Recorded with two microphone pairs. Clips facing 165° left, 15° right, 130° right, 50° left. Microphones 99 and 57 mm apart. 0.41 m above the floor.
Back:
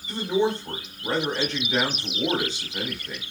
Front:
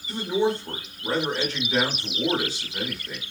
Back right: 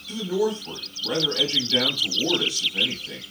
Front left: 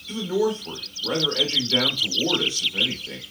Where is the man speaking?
70° left, 1.0 m.